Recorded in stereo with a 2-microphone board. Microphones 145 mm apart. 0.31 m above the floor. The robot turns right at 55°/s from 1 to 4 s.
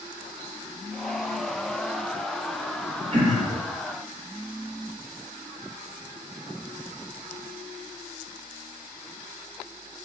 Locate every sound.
3.1 s throat clearing: 45° right (ahead or behind), 1.4 m; by 3.6 s 50° right (ahead or behind), 1.4 m